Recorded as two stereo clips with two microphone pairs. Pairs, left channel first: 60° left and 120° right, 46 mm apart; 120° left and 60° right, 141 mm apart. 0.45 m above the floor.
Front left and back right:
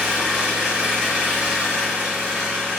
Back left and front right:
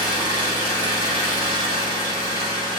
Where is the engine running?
170° left, 2 m.